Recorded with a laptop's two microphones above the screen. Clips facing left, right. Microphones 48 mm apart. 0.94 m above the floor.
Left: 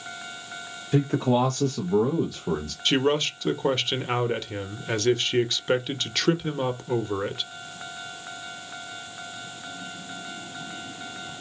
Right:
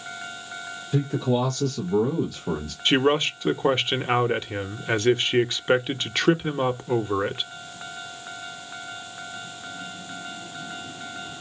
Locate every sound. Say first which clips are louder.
0.9 s a man speaking: left 2 dB; 60° left (ahead or behind), 1.2 m; by 2.8 s 15° right (ahead or behind), 1.1 m
2.9 s a man speaking: right 2 dB; 20° right (ahead or behind), 0.7 m